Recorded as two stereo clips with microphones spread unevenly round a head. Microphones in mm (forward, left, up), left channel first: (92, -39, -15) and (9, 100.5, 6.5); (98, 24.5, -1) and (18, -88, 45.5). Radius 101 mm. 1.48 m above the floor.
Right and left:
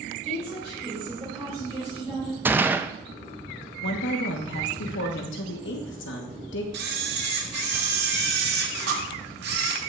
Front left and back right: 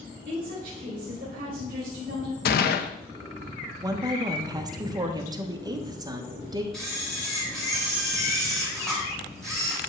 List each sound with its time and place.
0.2 s a woman speaking: 170° right, 3.5 m
2.5 s a gunshot: 55° left, 0.5 m
3.8 s a woman speaking: 70° right, 1.1 m
6.7 s a camera shutter: 150° left, 1.2 m